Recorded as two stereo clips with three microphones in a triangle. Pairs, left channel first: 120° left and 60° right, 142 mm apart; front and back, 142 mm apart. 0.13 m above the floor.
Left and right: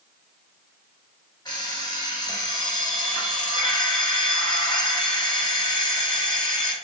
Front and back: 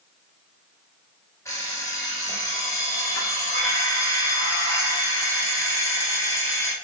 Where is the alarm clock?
65° left, 1.1 m.